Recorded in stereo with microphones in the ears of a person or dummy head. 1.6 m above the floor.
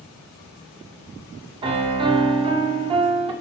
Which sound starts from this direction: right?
A piano, at 1.6 s.